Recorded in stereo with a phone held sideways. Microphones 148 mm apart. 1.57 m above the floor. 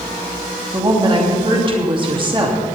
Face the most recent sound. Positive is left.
turn(degrees=-35)  # may be behind; listen again after turning